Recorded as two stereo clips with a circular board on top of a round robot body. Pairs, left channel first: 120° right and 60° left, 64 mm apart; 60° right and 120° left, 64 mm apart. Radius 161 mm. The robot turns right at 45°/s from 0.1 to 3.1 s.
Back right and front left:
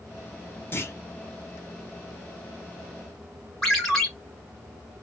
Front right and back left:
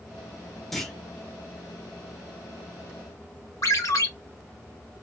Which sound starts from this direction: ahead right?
A ringtone, at 3.6 s.